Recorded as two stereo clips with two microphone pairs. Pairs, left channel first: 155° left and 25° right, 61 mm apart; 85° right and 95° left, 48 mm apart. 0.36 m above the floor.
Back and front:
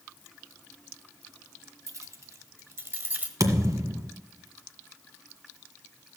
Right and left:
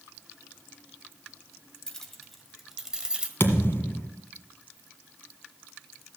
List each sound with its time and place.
1.9 s keys jangling: 10° right, 1.4 m; by 3.3 s 30° left, 1.1 m
3.4 s a thud: 50° right, 1.6 m